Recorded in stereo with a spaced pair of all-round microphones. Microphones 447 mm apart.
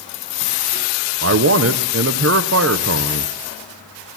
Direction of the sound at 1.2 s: 30° right (ahead or behind).